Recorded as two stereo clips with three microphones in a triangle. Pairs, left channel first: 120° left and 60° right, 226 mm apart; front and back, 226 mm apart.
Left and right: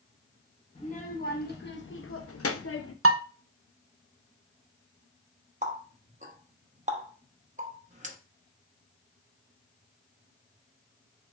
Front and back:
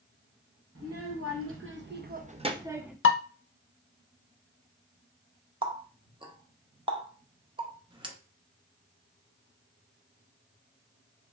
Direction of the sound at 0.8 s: Straight behind.